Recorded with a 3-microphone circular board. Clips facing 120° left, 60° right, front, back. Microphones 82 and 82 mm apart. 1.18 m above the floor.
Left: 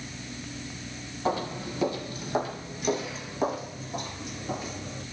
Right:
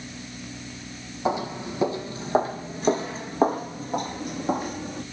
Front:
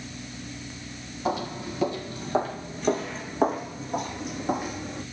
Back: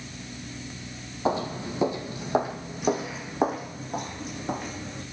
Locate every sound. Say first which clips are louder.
1.2 s footsteps: right 3 dB, back 2 dB; 125° right, 2 m; by 5.0 s 80° right, 3 m